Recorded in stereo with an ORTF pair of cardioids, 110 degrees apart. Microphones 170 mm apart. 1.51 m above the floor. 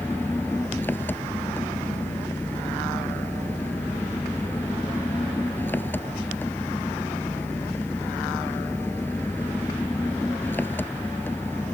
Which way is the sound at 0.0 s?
10° left.